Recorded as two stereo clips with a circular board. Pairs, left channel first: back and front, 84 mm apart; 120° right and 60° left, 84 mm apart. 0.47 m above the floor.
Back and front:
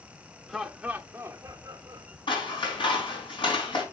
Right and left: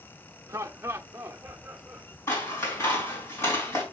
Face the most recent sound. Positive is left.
turn(degrees=180)